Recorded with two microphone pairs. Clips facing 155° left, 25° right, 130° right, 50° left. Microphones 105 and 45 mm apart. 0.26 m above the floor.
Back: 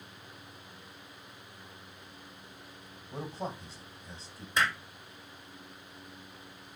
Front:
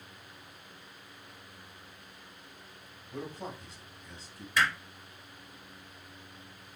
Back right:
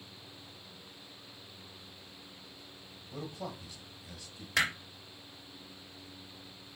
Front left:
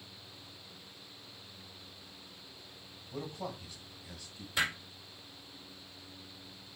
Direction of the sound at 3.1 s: 155° left.